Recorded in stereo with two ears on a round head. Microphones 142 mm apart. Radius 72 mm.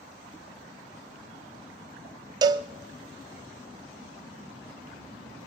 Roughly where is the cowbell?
Right.